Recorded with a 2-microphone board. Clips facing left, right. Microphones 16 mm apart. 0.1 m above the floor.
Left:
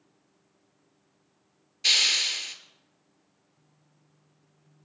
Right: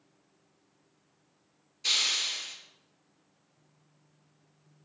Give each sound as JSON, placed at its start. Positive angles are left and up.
{"t": 1.8, "sound": "a hiss", "side_deg": 50, "distance_m": 0.7}